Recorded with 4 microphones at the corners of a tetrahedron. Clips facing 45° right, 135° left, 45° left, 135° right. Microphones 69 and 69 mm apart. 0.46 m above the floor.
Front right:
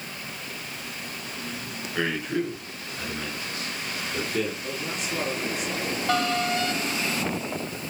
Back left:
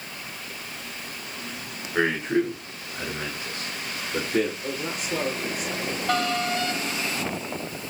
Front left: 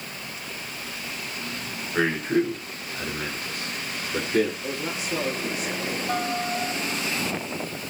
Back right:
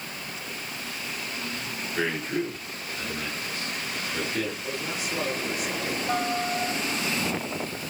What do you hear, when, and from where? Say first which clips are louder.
1.9 s a man speaking: back left 4 dB, front left 6 dB; 75° left, 6.5 m; by 4.5 s 85° left, 8.5 m
4.6 s a man speaking: back left 1 dB, front left 2 dB; 100° left, 7 m